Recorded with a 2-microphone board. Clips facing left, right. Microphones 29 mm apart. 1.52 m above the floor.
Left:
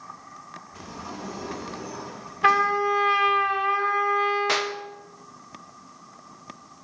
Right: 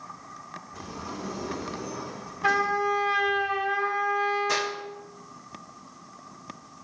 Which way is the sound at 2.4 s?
55° left (ahead or behind).